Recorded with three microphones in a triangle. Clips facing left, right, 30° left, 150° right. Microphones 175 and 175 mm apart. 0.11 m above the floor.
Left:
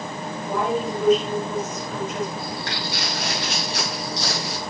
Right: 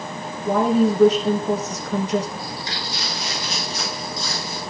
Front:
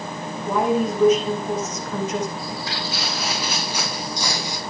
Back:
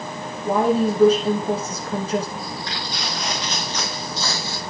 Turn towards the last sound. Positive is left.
turn(degrees=105)